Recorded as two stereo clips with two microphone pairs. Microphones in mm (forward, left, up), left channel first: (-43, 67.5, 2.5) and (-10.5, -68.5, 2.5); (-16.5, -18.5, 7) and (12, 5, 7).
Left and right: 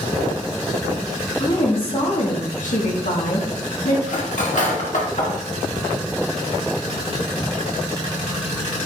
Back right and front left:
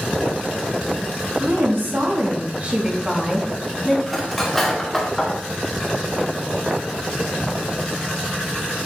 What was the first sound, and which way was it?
A woman speaking, 45° left.